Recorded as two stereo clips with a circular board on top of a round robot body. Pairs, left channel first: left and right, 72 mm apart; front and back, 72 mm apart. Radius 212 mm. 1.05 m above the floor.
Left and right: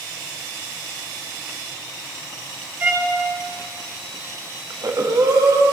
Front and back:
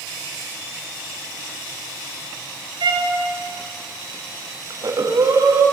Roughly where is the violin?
Behind right.